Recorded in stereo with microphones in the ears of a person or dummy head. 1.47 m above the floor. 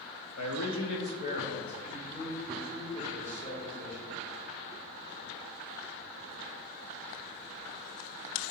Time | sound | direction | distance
0.4 | a man speaking | 85° left | 0.7 m